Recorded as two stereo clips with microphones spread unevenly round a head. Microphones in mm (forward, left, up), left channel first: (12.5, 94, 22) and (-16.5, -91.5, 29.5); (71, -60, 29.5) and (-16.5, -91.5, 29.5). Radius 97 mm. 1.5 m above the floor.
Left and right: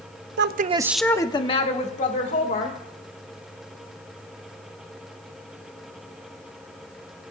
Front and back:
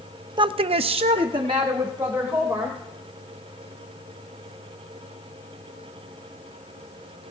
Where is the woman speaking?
125° right, 0.8 m; by 2.8 s 125° left, 3 m.